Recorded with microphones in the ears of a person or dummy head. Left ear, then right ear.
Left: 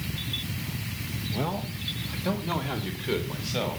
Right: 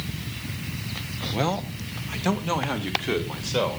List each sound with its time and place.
1.3 s a man speaking: 75° right (ahead or behind), 1.3 m; by 3.8 s 35° right (ahead or behind), 3 m